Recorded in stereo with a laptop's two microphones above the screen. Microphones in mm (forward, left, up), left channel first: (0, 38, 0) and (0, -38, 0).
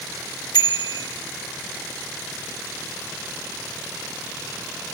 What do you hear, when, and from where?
0.5 s a bicycle bell: 70° left (ahead or behind), 2 m